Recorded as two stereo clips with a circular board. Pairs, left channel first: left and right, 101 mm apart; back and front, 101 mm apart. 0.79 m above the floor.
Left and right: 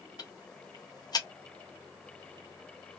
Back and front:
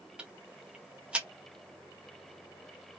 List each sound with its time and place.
0.2 s ticking: 75° left, 0.7 m